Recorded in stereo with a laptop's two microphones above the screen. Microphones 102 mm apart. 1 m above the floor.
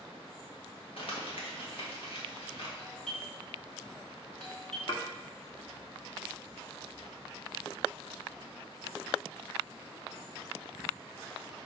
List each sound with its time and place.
1.0 s crumpling: 60° left (ahead or behind), 1.6 m
2.8 s a doorbell: 5° left (ahead or behind), 2.0 m
4.9 s dishes clattering: 55° left (ahead or behind), 1.2 m